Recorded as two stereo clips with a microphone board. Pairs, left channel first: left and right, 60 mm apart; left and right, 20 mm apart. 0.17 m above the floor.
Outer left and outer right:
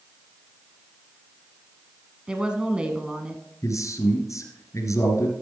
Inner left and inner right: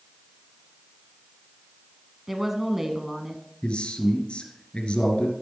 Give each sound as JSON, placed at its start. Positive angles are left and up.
{"t": 2.3, "sound": "a woman speaking", "side_deg": -15, "distance_m": 1.1}
{"t": 3.6, "sound": "a man speaking", "side_deg": 60, "distance_m": 2.5}